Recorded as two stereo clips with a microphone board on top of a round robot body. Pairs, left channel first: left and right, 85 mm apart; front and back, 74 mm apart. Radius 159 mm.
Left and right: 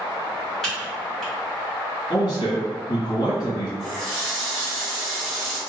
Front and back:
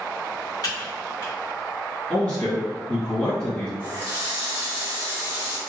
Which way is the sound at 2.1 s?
75° left.